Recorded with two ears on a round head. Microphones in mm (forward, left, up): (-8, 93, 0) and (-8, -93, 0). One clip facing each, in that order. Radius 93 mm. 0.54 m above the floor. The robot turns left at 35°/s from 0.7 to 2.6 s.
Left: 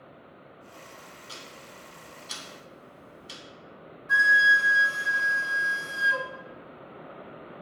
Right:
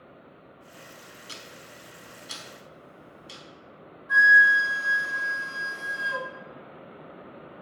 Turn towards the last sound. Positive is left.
turn(degrees=35)  # may be behind; listen again after turning